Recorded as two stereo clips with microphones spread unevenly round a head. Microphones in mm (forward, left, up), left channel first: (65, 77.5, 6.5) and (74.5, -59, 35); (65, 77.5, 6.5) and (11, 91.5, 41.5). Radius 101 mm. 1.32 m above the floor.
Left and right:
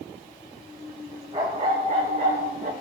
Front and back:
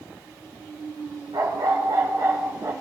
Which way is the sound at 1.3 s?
150° right.